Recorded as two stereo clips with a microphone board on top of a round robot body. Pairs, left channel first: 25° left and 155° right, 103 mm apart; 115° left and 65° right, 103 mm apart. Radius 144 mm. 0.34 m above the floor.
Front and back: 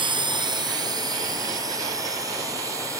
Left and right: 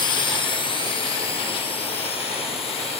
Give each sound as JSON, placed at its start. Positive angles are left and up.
{"t": 0.0, "sound": "a drone", "azimuth_deg": 160}